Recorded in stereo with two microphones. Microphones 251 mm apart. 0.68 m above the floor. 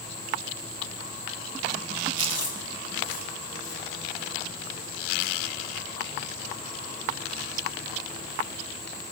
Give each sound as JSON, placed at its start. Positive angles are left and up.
{"t": 2.2, "sound": "chewing", "side_deg": 75, "distance_m": 2.5}